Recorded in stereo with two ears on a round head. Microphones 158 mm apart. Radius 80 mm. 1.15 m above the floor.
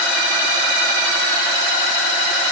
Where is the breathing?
I don't hear breathing.